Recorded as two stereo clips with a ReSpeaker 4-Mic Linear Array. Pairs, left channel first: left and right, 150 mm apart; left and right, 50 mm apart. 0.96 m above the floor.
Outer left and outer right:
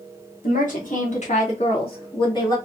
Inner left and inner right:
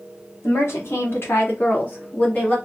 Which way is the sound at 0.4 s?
65° left (ahead or behind).